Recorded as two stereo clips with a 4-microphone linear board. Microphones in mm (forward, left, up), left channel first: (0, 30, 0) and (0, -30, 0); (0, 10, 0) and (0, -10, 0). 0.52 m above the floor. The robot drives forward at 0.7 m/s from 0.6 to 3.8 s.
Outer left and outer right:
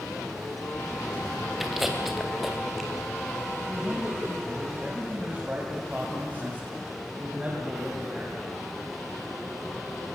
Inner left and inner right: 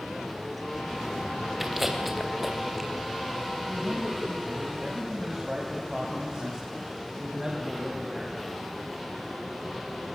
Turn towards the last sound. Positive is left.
turn(degrees=-25)  # may be behind; listen again after turning